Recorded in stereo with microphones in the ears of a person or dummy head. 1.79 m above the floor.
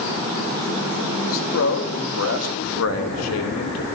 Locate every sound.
1.2 s a man speaking: 75° left (ahead or behind), 4 m